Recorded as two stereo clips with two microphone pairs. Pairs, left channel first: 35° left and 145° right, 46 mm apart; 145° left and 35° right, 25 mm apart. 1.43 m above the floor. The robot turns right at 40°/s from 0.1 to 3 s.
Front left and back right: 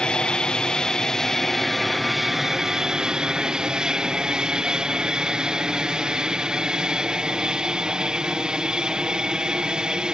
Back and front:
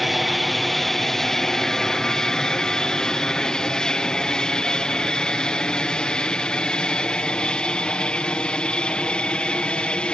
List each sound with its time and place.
0.0 s an aircraft: 55° left; by 10.2 s 150° left